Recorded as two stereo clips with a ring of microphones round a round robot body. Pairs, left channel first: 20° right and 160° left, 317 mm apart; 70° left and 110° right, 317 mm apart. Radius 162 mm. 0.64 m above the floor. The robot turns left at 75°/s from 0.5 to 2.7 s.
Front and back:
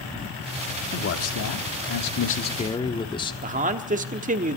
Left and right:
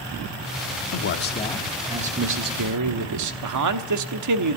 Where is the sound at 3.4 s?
140° right, 1.2 m.